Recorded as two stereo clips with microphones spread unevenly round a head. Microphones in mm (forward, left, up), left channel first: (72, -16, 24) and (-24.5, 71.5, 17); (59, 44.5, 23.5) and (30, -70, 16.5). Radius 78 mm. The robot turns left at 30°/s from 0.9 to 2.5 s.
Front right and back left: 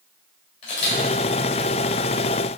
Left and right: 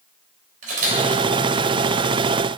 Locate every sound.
0.6 s a camera shutter: 95° right, 2.5 m